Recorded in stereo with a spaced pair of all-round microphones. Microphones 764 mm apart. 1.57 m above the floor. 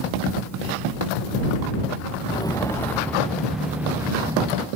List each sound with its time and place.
2.3 s footsteps: 5° left (ahead or behind); by 4.7 s 5° right (ahead or behind)